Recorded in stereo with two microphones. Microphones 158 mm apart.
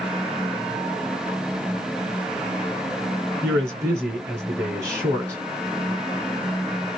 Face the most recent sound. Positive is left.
turn(degrees=-15)  # may be behind; listen again after turning